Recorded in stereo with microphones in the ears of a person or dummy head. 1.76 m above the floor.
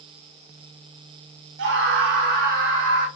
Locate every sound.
1.6 s a scream: 65° right (ahead or behind), 1.2 m; by 3.1 s 55° right (ahead or behind), 2 m